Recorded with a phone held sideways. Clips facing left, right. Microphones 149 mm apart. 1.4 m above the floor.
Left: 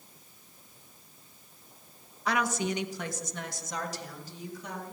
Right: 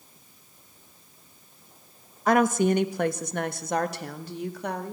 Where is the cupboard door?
I don't hear a cupboard door.